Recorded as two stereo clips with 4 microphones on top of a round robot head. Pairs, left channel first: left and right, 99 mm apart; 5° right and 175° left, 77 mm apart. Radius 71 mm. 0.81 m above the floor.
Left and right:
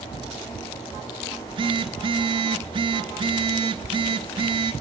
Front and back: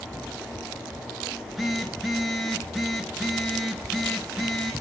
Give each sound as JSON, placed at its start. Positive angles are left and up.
{"t": 1.3, "sound": "a phone buzzing", "azimuth_deg": -95, "distance_m": 1.5}